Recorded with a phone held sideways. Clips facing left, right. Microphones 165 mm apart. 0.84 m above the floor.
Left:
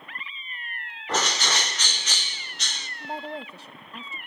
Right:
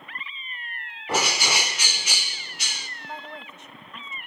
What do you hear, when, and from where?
1.1 s a bird: 10° right (ahead or behind), 0.7 m
3.0 s a woman speaking: 35° left (ahead or behind), 0.6 m